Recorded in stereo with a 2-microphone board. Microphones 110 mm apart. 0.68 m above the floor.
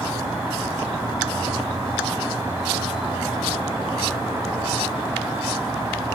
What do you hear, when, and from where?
0.0 s an insect: 25° right (ahead or behind), 3 m